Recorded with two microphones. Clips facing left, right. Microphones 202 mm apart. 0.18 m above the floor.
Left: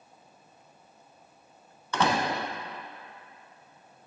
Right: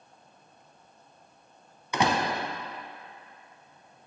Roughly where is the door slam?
Centre.